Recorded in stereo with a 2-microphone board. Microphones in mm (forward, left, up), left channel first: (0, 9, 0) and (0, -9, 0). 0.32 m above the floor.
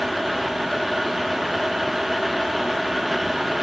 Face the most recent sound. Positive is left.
No sound to turn to.